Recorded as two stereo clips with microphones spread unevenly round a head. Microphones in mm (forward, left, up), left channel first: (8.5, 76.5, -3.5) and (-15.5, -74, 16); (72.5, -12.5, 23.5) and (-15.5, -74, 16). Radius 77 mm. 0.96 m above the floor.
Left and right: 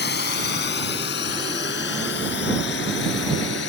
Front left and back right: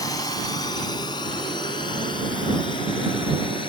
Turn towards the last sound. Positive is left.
turn(degrees=95)